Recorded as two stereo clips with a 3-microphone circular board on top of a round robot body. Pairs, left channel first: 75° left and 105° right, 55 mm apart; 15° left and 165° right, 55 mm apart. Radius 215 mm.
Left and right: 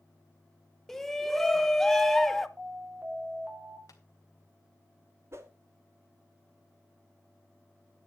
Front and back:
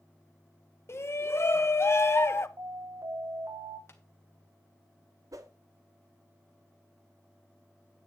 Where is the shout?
10° right, 1.5 m.